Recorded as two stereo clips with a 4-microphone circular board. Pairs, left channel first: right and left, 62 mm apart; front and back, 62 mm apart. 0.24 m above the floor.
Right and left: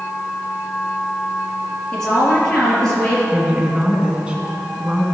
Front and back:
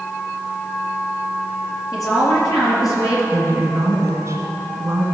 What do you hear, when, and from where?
1.9 s a woman speaking: 15° right, 4.5 m
3.3 s a woman speaking: 160° left, 2.5 m